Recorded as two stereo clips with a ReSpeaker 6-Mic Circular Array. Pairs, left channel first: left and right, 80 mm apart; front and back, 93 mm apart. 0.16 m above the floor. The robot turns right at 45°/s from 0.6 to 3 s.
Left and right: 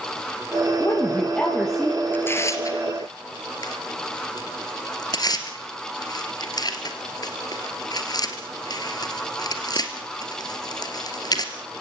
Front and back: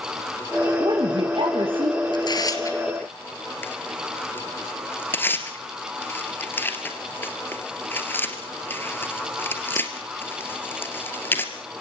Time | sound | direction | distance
0.8 | a woman speaking | 135° left | 3.5 m
2.1 | tearing paper | 25° left | 3 m